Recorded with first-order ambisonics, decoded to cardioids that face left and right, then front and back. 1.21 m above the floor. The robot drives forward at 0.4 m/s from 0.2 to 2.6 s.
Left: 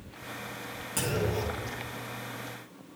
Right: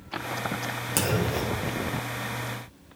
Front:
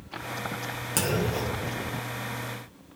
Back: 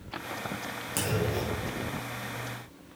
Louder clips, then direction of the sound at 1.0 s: Right 3 dB, front 3 dB; 60° right.